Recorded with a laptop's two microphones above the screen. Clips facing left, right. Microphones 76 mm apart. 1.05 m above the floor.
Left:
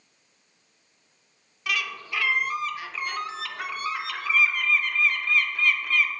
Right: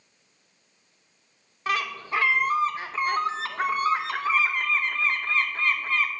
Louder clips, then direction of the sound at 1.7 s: Right 4 dB; 30° right (ahead or behind).